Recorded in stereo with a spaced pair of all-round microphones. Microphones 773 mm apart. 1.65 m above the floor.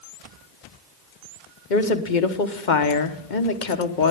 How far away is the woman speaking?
About 1.3 m.